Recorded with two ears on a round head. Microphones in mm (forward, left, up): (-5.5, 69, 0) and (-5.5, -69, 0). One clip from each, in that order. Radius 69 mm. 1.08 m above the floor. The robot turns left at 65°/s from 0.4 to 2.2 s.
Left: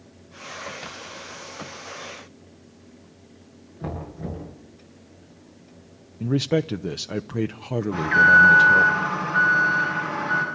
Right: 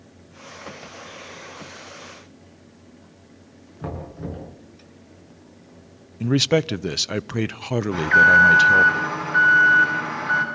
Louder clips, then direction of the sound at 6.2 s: Right 4 dB; 45° right (ahead or behind).